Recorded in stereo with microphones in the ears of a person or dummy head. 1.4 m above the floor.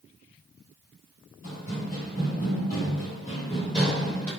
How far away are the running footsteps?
About 1.8 m.